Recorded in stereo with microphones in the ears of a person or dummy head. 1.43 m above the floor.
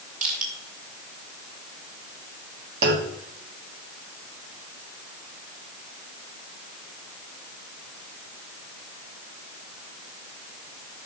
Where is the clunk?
65° right (ahead or behind), 1.1 m.